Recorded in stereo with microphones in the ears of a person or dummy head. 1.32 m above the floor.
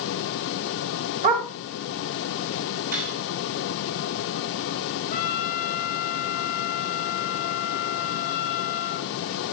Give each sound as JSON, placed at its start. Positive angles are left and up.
{"t": 1.2, "sound": "a dog barking", "side_deg": -30, "distance_m": 2.5}
{"t": 2.9, "sound": "cutlery clinking", "side_deg": -45, "distance_m": 6.0}
{"t": 5.1, "sound": "a trumpet", "side_deg": 45, "distance_m": 2.5}